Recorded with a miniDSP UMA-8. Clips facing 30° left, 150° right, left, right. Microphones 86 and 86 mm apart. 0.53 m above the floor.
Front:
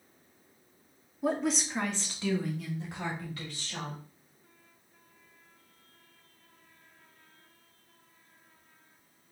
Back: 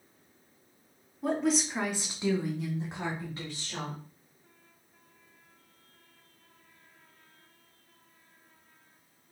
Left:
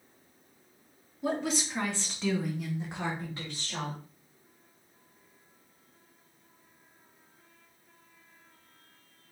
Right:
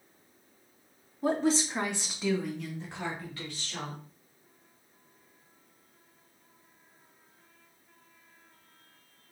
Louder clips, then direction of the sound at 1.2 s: Back 2 dB, right 4 dB; 55° right.